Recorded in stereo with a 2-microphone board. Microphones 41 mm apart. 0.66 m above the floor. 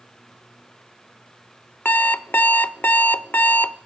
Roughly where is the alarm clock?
Left.